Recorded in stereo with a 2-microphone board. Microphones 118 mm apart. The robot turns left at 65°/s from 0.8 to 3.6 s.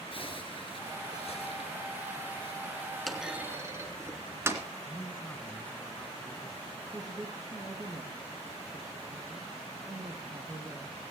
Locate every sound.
0.1 s a zipper: 120° left, 2.5 m; by 2.8 s 15° right, 2.5 m
3.1 s a clunk: centre (ahead or behind), 2 m; by 4.6 s 20° right (ahead or behind), 2 m
4.8 s a man speaking: 15° left (ahead or behind), 1.6 m
6.9 s a woman speaking: 35° right (ahead or behind), 3 m